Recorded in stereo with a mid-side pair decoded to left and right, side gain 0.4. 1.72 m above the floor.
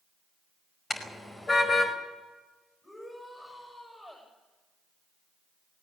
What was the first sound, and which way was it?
A car horn, 25° left.